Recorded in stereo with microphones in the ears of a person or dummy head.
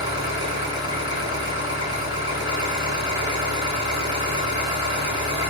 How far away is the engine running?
About 2.5 m.